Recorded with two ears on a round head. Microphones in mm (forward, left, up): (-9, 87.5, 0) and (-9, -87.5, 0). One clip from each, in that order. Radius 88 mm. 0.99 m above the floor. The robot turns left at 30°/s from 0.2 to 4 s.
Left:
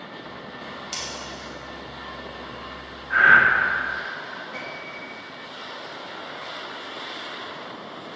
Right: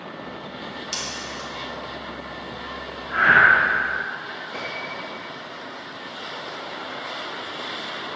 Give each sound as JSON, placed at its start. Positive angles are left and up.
{"t": 0.9, "sound": "scissors", "side_deg": 0, "distance_m": 1.5}
{"t": 3.1, "sound": "breathing", "side_deg": 35, "distance_m": 1.1}
{"t": 4.5, "sound": "a piano", "side_deg": -10, "distance_m": 1.9}